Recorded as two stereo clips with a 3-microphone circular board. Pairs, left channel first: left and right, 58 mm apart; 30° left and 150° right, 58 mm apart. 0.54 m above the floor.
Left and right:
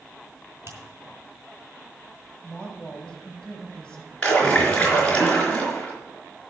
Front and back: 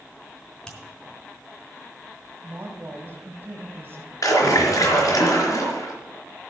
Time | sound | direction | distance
0.7 | a finger snap | 45° right | 3.5 m
2.4 | a woman speaking | 165° left | 3 m
4.2 | a splash | 20° left | 4 m